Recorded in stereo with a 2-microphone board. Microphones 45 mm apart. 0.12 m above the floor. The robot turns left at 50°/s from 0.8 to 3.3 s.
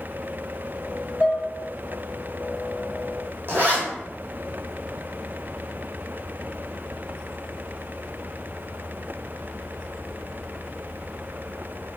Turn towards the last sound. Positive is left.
turn(degrees=-50)  # may be behind; listen again after turning